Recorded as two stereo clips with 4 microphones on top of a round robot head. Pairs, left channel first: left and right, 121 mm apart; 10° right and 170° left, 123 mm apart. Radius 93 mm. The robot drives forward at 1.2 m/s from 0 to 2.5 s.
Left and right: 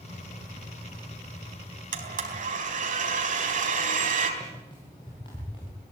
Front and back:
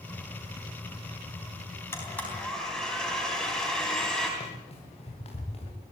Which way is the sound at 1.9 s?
85° right.